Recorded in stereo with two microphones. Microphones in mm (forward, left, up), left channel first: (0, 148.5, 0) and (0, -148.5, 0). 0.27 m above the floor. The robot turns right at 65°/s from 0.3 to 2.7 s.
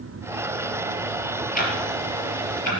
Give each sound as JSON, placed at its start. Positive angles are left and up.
{"t": 1.6, "sound": "ticking", "side_deg": 25, "distance_m": 3.5}